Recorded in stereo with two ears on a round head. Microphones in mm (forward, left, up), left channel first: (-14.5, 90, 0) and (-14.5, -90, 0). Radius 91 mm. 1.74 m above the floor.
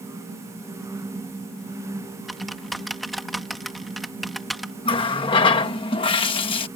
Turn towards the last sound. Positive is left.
turn(degrees=25)  # may be behind; listen again after turning